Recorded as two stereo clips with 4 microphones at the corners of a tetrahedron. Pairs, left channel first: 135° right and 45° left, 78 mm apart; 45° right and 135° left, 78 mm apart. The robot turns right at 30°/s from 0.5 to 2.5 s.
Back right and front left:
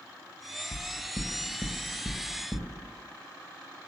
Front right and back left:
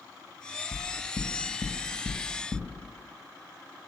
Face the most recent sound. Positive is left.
turn(degrees=-55)